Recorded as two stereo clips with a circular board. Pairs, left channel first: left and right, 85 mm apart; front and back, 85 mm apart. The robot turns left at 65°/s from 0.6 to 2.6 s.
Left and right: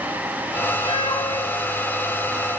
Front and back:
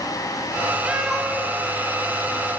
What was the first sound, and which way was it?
A cat meowing, 105° left.